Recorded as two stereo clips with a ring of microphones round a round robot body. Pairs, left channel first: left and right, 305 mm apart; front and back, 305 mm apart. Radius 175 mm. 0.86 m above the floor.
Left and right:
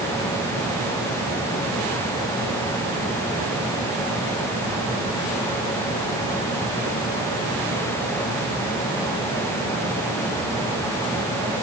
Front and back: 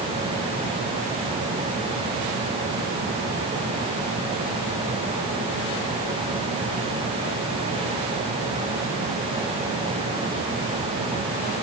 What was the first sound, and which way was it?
Only background noise.